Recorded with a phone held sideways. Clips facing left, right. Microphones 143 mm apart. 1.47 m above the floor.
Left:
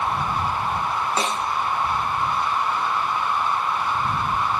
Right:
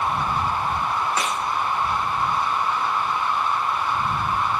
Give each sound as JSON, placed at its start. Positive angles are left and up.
{"t": 1.2, "sound": "a snare drum", "side_deg": 30}